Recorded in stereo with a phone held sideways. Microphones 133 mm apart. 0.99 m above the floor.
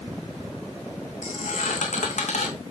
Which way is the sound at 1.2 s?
70° left (ahead or behind).